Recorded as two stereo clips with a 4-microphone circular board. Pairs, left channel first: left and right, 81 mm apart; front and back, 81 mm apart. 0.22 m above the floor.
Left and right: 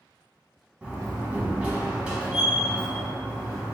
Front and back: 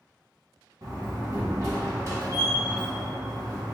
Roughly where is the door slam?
Behind.